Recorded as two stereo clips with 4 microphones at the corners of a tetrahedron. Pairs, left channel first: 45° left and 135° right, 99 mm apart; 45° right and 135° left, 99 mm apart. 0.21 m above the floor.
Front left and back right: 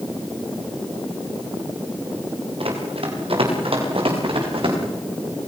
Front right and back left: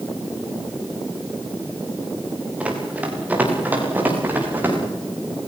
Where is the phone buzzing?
No phone buzzing in this recording.